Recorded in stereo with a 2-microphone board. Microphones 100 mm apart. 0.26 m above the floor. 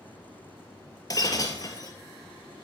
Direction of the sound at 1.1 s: 40° left (ahead or behind).